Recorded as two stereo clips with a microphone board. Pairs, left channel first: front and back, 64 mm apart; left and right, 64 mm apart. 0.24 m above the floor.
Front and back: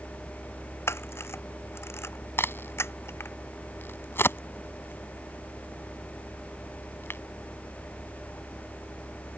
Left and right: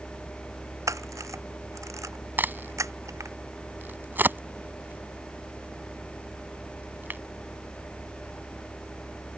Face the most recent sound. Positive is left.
turn(degrees=-40)